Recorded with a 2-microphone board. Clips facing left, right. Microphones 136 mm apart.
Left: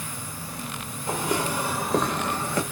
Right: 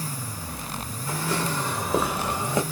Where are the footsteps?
25° left (ahead or behind), 1.8 m; by 2.6 s 20° right (ahead or behind), 1.8 m.